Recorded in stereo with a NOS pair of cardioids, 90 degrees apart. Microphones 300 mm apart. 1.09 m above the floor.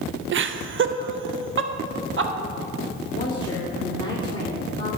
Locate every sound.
0.3 s laughter: 40° right, 0.7 m
3.1 s a woman speaking: 15° left, 2.5 m